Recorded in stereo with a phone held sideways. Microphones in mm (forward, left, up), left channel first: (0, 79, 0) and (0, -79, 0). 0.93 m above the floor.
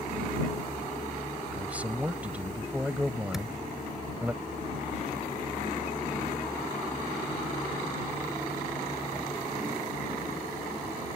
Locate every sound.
1.5 s a man speaking: 10° right (ahead or behind)
3.3 s a thud: centre (ahead or behind)